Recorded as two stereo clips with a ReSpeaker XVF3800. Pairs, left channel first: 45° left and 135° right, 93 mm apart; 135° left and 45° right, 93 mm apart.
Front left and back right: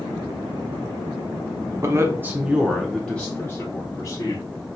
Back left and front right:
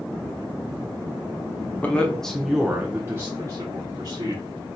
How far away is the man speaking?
About 0.7 m.